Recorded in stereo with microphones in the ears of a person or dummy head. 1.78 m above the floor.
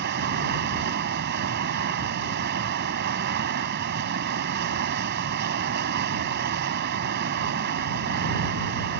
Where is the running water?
50° right (ahead or behind).